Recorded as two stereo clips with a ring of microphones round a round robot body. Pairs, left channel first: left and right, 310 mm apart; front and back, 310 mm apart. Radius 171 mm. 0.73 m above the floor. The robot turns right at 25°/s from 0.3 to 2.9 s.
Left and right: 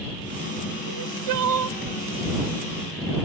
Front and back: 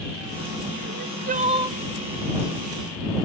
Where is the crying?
125° right; by 1.8 s 100° right.